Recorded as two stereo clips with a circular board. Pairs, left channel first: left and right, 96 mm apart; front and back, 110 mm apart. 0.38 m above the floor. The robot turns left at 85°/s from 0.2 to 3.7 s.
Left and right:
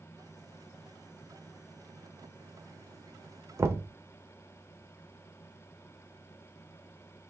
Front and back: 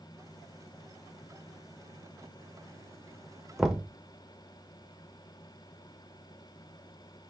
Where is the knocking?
95° right, 0.6 m; by 3.9 s 105° right, 0.6 m.